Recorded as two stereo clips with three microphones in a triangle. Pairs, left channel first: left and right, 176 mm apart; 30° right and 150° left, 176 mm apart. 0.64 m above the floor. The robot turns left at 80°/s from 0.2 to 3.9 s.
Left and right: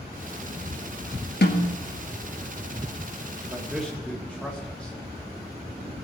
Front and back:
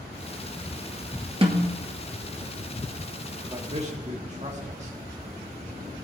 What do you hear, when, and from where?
1.4 s a snare drum: 95° left, 1.9 m; by 1.7 s 70° left, 1.9 m
3.5 s a man speaking: 155° right, 1.5 m; by 4.9 s 170° left, 1.5 m